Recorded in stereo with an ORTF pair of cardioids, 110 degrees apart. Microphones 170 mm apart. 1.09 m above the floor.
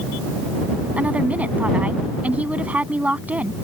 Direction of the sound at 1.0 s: 10° right.